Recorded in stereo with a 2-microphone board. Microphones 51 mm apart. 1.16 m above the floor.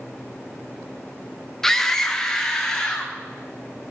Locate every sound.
1.6 s a scream: 5° left (ahead or behind), 0.9 m; by 3.1 s 15° left (ahead or behind), 3 m